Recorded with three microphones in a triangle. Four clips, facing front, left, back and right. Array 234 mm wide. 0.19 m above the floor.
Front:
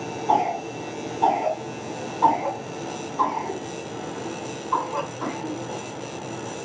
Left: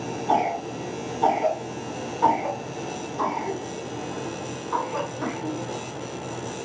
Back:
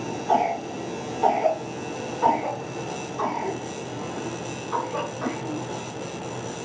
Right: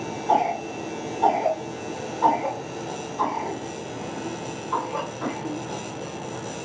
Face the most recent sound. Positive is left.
turn(degrees=-5)